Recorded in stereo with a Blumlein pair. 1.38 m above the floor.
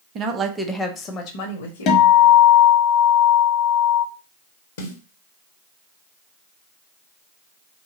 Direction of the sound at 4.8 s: 60° left.